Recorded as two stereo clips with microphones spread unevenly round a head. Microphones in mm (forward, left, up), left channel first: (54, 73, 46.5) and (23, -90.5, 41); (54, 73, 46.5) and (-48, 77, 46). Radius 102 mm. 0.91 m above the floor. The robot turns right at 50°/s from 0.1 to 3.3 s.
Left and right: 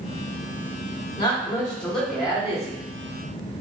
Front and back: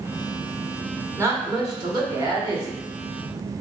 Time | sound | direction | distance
1.2 | a woman speaking | 130° left | 1.0 m